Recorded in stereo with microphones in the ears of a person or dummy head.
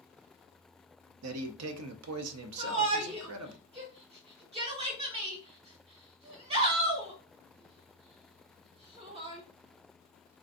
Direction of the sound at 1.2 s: 85° right.